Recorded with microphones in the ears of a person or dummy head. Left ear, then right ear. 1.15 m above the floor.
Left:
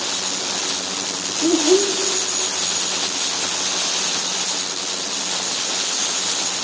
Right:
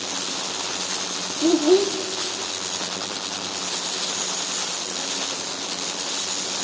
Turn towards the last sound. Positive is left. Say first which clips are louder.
# left 1 dB
turn(degrees=-35)  # may be behind; listen again after turning